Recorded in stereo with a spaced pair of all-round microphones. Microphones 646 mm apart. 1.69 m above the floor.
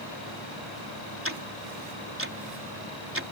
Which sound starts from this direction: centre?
Ticking, at 1.2 s.